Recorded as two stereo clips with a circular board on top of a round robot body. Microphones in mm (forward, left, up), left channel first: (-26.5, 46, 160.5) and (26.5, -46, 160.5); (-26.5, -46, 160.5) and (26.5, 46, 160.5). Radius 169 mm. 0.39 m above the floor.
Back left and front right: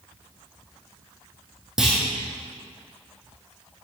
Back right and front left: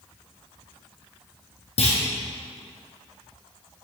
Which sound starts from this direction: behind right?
A clunk, at 1.8 s.